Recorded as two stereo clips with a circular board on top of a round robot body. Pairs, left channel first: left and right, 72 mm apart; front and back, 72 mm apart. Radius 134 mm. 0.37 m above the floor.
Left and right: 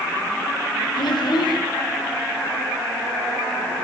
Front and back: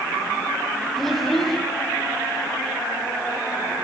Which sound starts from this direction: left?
A child speaking, at 1.0 s.